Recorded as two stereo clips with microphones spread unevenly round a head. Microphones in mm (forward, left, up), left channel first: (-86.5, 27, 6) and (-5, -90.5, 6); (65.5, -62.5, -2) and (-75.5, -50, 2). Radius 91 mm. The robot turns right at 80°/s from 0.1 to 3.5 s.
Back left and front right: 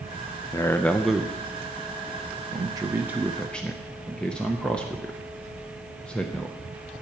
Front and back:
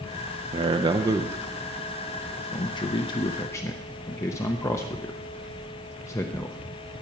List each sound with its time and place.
0.5 s a man speaking: 170° left, 0.6 m; by 7.0 s 50° left, 0.6 m